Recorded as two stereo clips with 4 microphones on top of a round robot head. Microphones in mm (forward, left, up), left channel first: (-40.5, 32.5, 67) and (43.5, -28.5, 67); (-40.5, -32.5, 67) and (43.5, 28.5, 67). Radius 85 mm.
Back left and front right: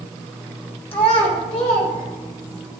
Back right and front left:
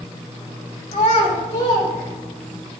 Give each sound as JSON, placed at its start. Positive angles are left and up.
{"t": 0.9, "sound": "a child speaking", "azimuth_deg": 180, "distance_m": 3.0}